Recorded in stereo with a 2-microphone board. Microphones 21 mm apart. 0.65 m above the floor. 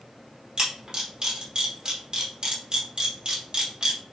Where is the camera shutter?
30° right (ahead or behind), 1.4 m.